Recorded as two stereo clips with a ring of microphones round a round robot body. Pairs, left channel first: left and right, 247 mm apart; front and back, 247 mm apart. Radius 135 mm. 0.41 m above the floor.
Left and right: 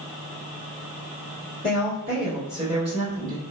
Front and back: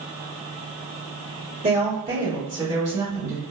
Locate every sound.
1.6 s a woman speaking: 175° left, 1.5 m; by 3.4 s 130° right, 1.7 m